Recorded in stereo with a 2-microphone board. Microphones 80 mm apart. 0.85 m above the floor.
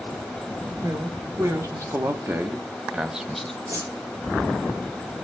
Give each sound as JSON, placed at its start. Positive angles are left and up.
{"t": 0.8, "sound": "a man speaking", "side_deg": -50, "distance_m": 2.0}
{"t": 3.7, "sound": "a whoosh", "side_deg": -55, "distance_m": 2.0}